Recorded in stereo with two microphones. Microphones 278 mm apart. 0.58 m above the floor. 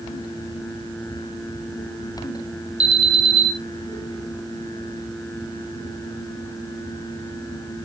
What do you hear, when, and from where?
2.8 s an alarm: 75° right (ahead or behind), 6.5 m